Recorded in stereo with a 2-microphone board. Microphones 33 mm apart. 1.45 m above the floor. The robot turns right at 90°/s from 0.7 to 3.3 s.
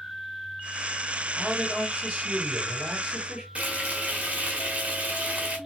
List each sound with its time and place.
1.3 s a man speaking: 160° left, 2.5 m; by 3.5 s 25° right, 2.5 m
3.5 s frying: 40° right (ahead or behind), 1.3 m